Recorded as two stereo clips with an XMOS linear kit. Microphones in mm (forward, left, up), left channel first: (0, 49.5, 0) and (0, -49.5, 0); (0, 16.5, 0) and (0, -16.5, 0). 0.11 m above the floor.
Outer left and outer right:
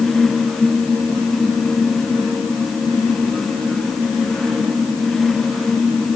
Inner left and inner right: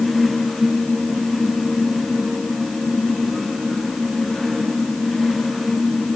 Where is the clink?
No clink in this recording.